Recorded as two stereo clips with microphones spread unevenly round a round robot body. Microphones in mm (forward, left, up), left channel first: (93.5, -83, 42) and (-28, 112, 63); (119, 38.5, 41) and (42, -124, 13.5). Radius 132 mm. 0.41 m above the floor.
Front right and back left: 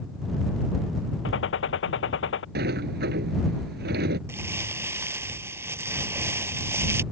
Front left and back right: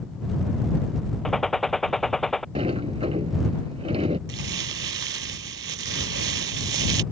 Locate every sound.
1.2 s a gunshot: 25° right
2.5 s a sliding door: 175° left
4.3 s crumpling: 155° right